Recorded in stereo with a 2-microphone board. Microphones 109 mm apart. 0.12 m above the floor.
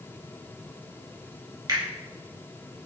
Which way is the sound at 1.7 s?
40° right (ahead or behind).